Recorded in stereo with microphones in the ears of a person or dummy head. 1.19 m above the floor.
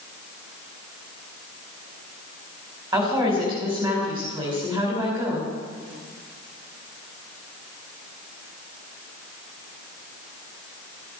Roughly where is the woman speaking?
Right.